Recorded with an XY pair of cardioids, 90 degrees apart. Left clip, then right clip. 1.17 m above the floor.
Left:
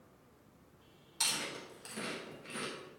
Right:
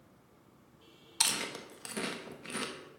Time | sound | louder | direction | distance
1.2 | chewing | right 3 dB | 60° right | 1.2 m